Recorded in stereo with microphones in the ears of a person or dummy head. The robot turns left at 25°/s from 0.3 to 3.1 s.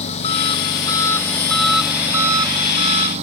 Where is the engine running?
35° left; by 3.2 s 35° right.